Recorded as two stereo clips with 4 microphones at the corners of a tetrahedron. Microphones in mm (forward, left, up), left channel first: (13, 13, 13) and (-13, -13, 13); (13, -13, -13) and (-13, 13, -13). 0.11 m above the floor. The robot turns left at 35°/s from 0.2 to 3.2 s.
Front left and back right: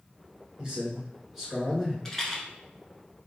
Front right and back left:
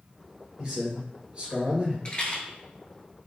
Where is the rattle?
20° right, 0.8 m; by 2.4 s 30° right, 0.8 m.